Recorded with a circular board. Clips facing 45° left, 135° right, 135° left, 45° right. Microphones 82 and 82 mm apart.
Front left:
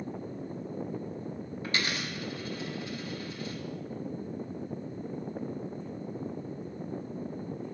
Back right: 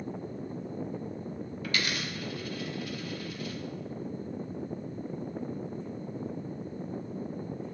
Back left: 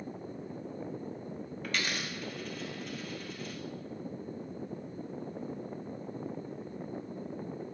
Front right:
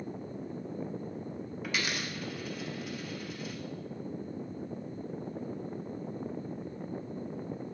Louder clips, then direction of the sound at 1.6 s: Even, even; 30° left.